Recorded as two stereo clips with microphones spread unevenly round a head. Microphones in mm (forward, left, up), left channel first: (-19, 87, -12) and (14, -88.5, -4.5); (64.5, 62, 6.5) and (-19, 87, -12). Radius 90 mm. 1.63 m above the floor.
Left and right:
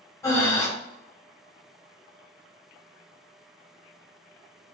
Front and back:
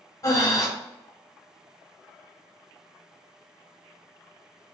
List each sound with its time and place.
0.2 s breathing: 25° left, 1.3 m